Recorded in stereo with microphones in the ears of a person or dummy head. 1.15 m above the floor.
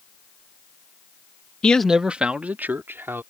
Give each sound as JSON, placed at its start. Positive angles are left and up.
{"t": 1.6, "sound": "a man speaking", "side_deg": 5}